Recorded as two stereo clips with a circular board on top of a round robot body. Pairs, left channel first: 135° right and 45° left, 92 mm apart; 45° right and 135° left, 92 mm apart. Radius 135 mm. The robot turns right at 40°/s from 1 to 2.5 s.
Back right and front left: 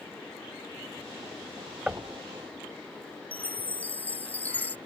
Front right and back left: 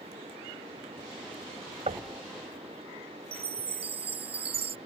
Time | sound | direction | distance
1.9 | knocking | 125° left | ?
3.3 | a chime | 150° left | ?